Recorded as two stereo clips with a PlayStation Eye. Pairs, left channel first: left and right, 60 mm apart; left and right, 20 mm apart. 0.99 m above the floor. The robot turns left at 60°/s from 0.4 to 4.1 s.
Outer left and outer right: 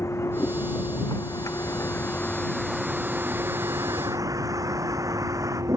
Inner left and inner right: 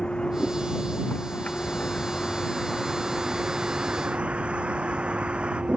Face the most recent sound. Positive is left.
turn(degrees=-65)  # may be behind; listen again after turning